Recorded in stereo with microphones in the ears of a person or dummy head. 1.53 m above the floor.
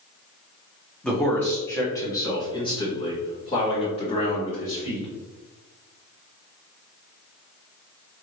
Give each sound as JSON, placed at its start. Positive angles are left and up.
{"t": 1.0, "sound": "a man speaking", "side_deg": 5, "distance_m": 1.1}